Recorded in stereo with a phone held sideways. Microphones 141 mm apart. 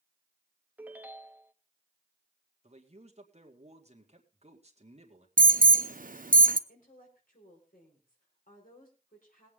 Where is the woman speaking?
85° left, 5 m.